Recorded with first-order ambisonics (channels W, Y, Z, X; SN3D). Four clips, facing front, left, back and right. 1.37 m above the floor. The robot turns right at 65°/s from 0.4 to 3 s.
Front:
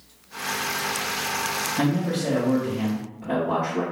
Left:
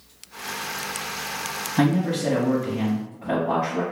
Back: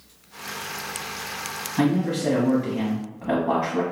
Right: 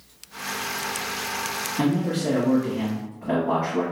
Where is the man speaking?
95° left, 1.0 m; by 3.8 s 175° left, 1.0 m.